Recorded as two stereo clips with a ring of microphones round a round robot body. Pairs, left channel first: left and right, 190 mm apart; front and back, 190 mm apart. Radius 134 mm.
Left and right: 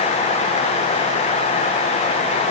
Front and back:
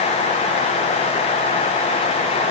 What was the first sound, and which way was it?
Only background noise.